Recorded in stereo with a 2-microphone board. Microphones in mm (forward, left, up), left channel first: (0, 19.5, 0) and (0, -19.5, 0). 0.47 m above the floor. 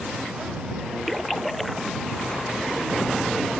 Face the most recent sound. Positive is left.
turn(degrees=5)  # may be behind; listen again after turning